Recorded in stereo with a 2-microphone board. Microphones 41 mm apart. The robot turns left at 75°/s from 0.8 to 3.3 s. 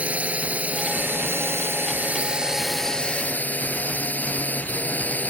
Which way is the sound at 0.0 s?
40° right.